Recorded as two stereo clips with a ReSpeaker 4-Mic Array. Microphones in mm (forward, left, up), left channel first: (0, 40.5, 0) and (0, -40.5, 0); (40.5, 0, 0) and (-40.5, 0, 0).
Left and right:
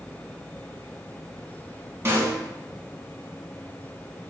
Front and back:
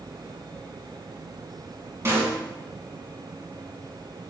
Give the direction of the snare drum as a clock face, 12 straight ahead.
4 o'clock.